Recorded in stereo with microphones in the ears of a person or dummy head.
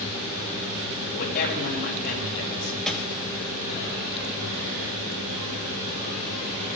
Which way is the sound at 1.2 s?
50° left (ahead or behind).